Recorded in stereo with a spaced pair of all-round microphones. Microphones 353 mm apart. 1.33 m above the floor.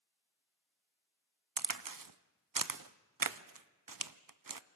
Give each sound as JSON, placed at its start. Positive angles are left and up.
{"t": 1.6, "sound": "a crack", "side_deg": -75, "distance_m": 0.5}